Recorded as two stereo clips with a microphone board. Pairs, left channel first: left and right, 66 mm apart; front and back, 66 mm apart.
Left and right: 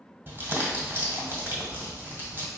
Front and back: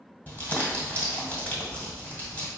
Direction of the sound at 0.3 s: 50° right.